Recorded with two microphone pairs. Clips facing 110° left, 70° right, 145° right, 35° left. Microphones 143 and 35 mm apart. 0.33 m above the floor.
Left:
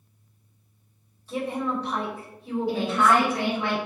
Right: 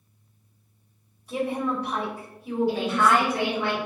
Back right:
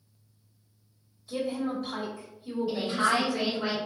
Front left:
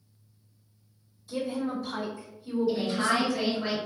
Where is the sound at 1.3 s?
145° right, 1.7 m.